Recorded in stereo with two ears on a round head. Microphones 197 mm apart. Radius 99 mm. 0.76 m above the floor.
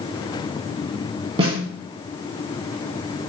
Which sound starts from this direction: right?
A snare drum, at 1.4 s.